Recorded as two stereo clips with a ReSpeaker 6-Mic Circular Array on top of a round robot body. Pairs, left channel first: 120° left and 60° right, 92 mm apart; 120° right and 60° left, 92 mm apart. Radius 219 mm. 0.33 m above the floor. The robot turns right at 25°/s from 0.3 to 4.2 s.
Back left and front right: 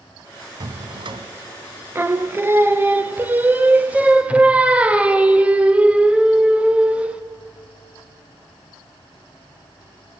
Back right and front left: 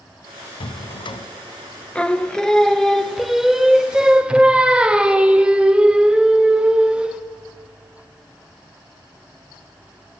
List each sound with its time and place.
0.6 s a drawer: 100° right, 1.1 m; by 1.3 s 85° right, 1.1 m
1.9 s singing: 60° right, 1.2 m; by 7.2 s 5° right, 1.2 m